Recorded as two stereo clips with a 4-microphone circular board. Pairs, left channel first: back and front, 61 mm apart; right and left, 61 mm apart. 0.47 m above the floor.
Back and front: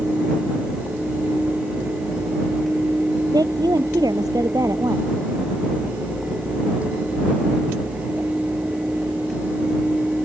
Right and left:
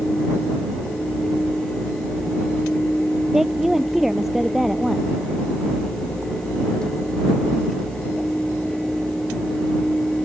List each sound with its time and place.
3.3 s a woman speaking: 5° left